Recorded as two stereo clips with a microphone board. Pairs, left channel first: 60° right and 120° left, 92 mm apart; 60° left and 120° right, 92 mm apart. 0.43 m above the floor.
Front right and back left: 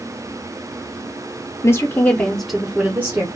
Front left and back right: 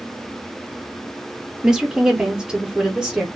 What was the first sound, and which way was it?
A woman speaking, 40° right.